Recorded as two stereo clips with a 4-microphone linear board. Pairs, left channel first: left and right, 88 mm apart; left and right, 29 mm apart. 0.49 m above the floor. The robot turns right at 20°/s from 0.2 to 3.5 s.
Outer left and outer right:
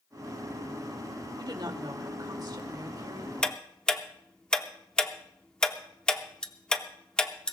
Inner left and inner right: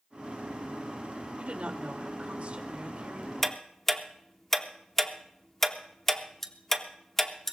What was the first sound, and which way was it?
A woman speaking, 95° right.